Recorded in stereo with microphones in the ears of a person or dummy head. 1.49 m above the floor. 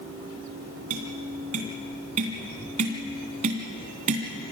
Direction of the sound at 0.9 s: 45° right (ahead or behind).